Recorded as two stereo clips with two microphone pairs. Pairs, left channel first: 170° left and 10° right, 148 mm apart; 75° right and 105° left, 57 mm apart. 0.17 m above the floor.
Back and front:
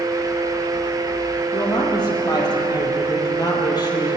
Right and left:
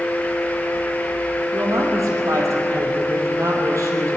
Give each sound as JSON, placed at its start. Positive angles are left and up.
{"t": 1.5, "sound": "a woman speaking", "azimuth_deg": 110, "distance_m": 4.5}